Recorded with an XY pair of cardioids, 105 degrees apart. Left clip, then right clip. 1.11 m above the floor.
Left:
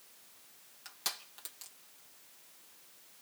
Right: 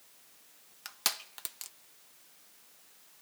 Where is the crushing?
60° right, 0.8 m.